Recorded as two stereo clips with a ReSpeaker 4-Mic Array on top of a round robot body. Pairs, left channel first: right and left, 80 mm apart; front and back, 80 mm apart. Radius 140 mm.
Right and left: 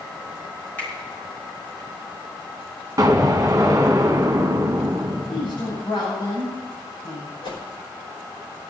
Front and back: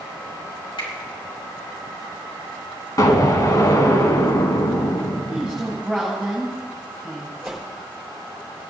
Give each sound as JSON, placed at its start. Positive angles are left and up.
{"t": 0.8, "sound": "a finger snap", "azimuth_deg": -20, "distance_m": 4.5}
{"t": 3.0, "sound": "an explosion", "azimuth_deg": 40, "distance_m": 1.4}
{"t": 5.3, "sound": "a woman speaking", "azimuth_deg": -85, "distance_m": 6.0}
{"t": 7.4, "sound": "a whoosh", "azimuth_deg": -90, "distance_m": 4.5}